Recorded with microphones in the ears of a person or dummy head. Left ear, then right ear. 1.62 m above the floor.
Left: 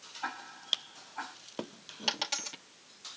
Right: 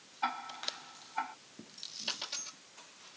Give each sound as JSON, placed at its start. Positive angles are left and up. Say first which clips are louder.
{"t": 0.2, "sound": "ticking", "louder": "right 5 dB", "side_deg": -75, "distance_m": 3.5}
{"t": 2.1, "sound": "a dropped coin", "louder": "left 7 dB", "side_deg": 40, "distance_m": 1.5}